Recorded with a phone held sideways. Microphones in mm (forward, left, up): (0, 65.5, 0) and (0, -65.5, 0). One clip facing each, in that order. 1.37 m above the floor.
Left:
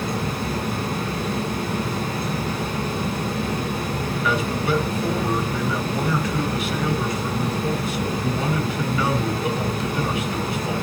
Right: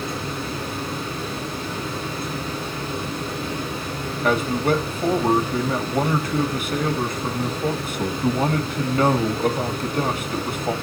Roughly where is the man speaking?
Right.